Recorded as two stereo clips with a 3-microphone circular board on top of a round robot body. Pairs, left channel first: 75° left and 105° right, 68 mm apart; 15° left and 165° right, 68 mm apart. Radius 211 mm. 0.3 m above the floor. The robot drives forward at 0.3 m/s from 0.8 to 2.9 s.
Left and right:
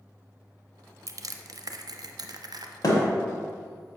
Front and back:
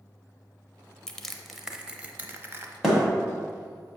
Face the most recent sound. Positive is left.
turn(degrees=110)